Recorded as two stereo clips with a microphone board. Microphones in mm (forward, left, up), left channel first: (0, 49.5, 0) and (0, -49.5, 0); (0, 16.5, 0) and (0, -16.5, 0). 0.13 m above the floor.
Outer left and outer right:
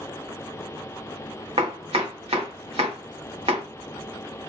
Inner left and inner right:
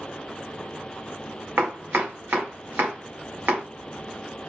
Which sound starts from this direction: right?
Chopping, at 1.6 s.